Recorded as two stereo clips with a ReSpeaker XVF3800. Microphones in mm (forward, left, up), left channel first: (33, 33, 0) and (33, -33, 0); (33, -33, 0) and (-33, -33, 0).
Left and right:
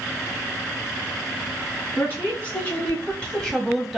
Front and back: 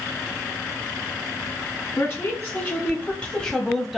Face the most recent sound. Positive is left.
turn(degrees=-170)